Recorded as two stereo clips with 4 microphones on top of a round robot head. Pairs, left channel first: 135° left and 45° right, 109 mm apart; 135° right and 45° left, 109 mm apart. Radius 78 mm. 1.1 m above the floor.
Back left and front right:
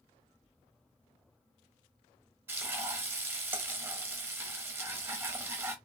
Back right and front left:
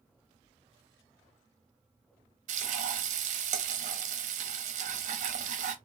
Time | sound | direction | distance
2.5 | frying | 25° left | 0.7 m